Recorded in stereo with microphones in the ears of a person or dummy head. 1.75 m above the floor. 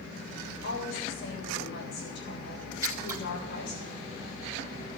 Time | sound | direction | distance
0.6 | a woman speaking | 55° left (ahead or behind) | 7 m
2.8 | scissors | 15° right (ahead or behind) | 1.6 m